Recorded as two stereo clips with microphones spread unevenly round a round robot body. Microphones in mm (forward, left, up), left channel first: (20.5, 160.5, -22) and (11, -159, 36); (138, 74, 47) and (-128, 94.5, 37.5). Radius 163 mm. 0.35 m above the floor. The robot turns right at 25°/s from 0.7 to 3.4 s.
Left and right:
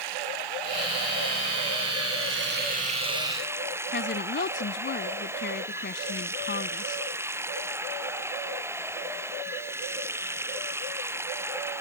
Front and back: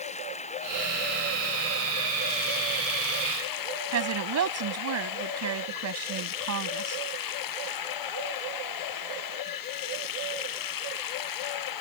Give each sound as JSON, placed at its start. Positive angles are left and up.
{"t": 0.0, "sound": "running water", "azimuth_deg": -75}
{"t": 3.9, "sound": "a woman speaking", "azimuth_deg": 150}